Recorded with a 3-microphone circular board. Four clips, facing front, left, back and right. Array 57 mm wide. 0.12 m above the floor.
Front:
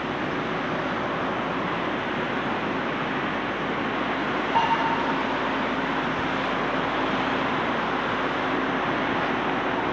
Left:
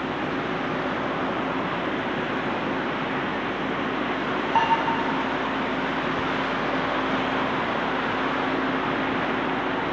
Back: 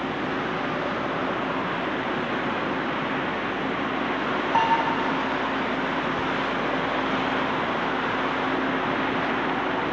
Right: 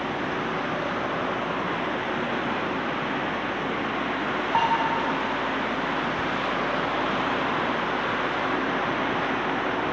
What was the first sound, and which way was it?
Dishes clattering, 130° right.